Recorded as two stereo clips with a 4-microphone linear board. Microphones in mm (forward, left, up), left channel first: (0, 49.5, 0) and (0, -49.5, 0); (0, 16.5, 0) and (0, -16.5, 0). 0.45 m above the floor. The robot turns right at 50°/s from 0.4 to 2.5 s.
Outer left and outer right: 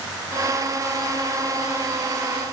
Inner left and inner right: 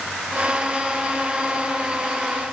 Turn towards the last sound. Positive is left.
No sound to turn to.